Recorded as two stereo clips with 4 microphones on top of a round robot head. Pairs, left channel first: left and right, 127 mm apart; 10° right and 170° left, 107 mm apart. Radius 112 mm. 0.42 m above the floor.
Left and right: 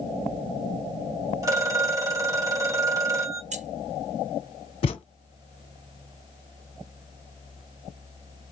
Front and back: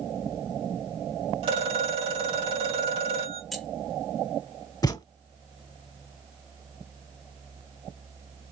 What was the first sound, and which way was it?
A phone ringing, 155° right.